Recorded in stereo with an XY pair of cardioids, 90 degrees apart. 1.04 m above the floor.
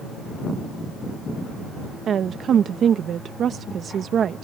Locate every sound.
2.1 s a woman speaking: 65° right